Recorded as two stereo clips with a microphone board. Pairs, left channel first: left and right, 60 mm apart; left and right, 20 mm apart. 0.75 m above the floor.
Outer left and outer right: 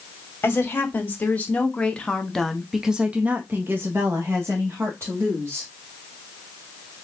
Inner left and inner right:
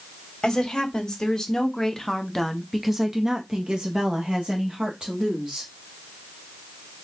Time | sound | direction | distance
0.4 | a woman speaking | 35° left (ahead or behind) | 1.7 m